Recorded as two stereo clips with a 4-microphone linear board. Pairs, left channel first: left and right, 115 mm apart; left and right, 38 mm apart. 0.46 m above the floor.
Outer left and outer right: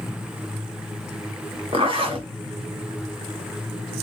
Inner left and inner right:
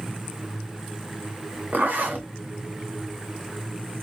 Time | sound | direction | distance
1.7 | a zipper | 55° right (ahead or behind) | 1.7 m